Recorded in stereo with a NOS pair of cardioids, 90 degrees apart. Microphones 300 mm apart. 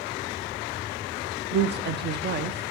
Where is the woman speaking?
35° right, 0.5 m.